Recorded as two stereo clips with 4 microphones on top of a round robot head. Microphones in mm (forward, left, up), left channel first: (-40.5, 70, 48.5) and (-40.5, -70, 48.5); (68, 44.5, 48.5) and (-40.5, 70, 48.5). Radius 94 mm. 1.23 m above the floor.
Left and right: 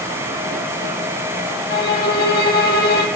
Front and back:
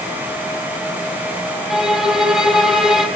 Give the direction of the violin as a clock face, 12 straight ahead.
9 o'clock.